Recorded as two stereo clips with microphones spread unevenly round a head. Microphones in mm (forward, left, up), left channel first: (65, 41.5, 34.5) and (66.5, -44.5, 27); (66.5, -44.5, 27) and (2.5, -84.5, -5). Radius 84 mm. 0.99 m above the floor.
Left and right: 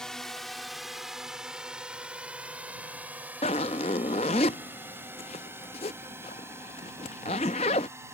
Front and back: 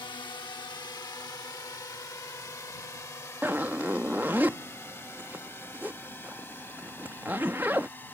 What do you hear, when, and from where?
0.0 s a drone: 10° left; by 8.2 s 30° right
3.4 s a zipper: 125° left